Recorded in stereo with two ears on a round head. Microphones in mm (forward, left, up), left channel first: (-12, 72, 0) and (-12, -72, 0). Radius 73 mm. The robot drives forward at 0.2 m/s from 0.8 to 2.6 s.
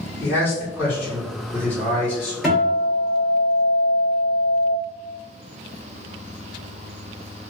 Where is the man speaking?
15° left (ahead or behind), 1.9 m.